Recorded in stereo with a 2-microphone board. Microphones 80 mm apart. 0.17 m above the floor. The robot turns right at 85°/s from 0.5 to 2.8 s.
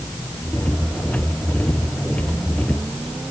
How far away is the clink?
No clink in this recording.